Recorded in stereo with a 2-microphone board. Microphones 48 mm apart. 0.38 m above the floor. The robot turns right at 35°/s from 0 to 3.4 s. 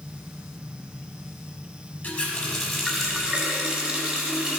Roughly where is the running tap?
Behind left.